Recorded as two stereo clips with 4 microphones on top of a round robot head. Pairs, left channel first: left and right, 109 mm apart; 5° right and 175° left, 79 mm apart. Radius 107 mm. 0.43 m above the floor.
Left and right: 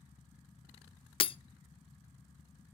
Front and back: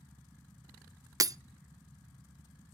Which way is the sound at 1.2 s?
130° left.